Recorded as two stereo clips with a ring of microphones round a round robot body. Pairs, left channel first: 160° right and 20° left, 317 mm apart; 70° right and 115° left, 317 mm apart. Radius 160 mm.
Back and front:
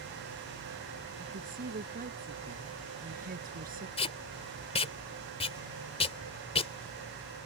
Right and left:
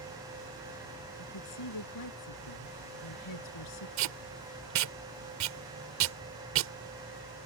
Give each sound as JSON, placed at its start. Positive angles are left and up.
{"t": 1.2, "sound": "a woman speaking", "azimuth_deg": -40}
{"t": 4.0, "sound": "tape being pulled", "azimuth_deg": 135}